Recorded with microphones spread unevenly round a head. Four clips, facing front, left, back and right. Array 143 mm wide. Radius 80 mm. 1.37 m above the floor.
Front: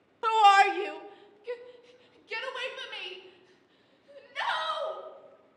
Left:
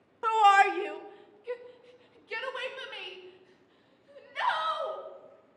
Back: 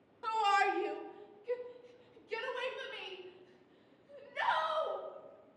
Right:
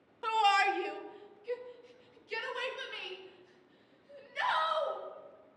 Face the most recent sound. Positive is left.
turn(degrees=30)